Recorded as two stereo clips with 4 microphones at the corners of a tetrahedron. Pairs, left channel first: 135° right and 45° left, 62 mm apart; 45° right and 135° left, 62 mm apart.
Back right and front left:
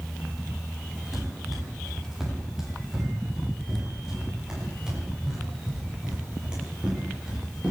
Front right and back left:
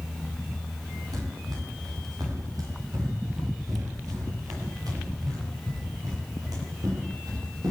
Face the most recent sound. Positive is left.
turn(degrees=120)